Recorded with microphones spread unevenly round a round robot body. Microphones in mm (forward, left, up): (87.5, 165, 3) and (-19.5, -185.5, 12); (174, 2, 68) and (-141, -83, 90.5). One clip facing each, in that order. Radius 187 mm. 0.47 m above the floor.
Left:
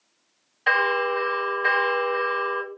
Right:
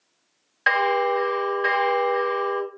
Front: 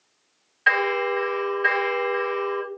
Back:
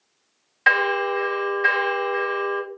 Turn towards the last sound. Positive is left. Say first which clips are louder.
# right 3 dB, even
turn(degrees=-150)